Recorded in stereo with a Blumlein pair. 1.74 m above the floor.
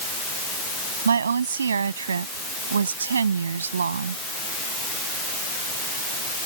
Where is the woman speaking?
70° right.